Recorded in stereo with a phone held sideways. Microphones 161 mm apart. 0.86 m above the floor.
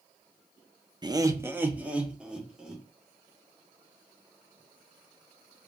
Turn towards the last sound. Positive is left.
turn(degrees=-5)  # may be behind; listen again after turning